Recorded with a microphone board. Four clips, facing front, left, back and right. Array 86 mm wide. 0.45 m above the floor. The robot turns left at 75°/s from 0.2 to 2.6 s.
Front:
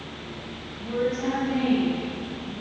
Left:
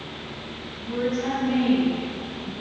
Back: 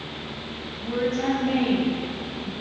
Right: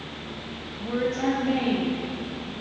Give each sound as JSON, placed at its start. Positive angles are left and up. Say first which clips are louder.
{"t": 0.8, "sound": "a woman speaking", "louder": "even, back 1 dB", "azimuth_deg": -90, "distance_m": 2.0}